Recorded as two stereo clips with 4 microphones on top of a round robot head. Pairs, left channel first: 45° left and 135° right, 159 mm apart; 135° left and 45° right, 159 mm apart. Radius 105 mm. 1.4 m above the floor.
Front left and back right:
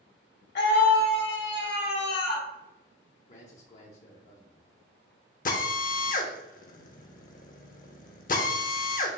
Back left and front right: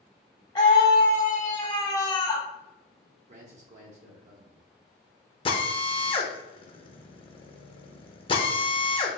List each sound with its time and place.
0.6 s a scream: 65° left, 1.1 m
3.3 s a man speaking: straight ahead, 0.8 m
5.5 s a drill: 75° left, 0.7 m